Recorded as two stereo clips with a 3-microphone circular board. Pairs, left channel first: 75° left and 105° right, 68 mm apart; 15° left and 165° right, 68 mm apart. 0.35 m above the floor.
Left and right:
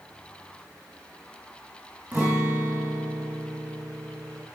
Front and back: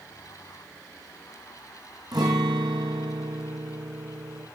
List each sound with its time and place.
2.1 s a guitar: 170° right, 7 m